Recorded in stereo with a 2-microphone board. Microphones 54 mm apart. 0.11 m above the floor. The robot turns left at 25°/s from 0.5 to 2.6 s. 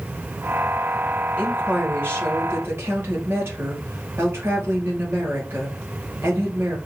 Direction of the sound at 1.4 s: 40° right.